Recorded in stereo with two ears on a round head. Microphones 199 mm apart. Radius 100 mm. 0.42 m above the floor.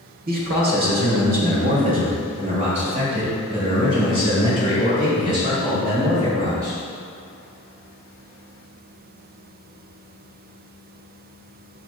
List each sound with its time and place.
0.3 s a man speaking: 40° right (ahead or behind), 1.5 m; by 6.8 s 15° right (ahead or behind), 4.5 m